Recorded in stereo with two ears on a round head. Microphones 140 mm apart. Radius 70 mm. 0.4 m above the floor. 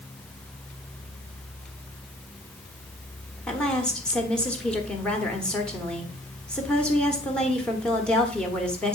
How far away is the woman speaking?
About 1.2 m.